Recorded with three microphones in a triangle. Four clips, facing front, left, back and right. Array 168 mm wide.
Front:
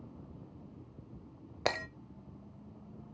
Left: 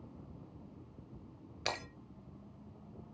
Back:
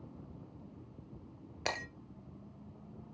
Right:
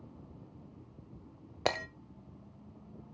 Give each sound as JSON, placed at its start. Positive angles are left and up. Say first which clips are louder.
{"t": 1.6, "sound": "breaking glass", "louder": "right 7 dB, front 5 dB", "azimuth_deg": -60, "distance_m": 0.9}